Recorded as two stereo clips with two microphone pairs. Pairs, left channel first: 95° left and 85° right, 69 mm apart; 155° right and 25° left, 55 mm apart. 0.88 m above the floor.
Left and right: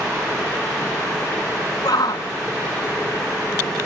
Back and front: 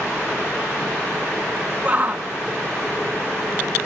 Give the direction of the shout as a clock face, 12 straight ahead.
9 o'clock.